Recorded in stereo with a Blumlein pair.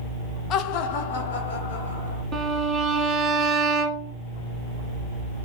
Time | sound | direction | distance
0.5 | laughter | 30° left | 0.6 m
2.3 | a violin | 20° right | 1.1 m